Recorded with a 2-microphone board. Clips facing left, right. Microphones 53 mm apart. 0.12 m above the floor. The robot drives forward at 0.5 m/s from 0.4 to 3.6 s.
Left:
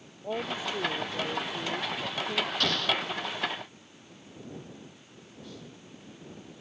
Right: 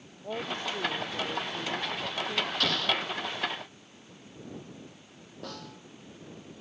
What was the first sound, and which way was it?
A woman speaking, 10° left (ahead or behind).